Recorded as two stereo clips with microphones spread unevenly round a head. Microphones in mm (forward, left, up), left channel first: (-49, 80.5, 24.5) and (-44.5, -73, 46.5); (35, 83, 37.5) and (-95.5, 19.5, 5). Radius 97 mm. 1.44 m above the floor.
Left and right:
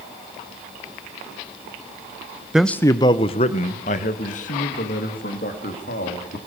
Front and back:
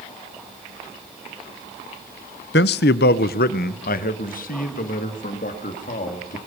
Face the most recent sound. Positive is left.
turn(degrees=55)